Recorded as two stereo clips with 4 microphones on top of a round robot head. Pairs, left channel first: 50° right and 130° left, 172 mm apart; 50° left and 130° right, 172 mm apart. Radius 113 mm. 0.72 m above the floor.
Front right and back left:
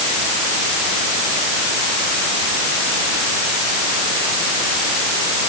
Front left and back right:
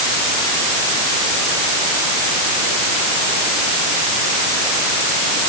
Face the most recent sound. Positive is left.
No sound to turn to.